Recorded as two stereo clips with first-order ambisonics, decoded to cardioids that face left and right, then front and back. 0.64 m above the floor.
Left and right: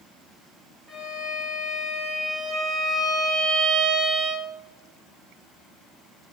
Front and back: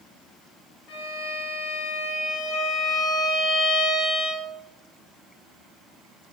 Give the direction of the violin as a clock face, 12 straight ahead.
12 o'clock.